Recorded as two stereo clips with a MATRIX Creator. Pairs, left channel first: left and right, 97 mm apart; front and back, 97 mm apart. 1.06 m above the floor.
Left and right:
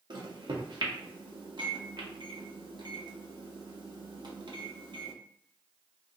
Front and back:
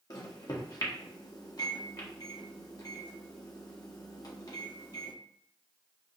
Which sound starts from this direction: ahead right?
A microwave, at 0.1 s.